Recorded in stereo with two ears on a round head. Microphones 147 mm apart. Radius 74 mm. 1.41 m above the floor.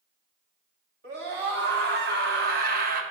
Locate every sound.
1.0 s a scream: 75° right (ahead or behind), 2.5 m; by 3.0 s 55° right (ahead or behind), 0.9 m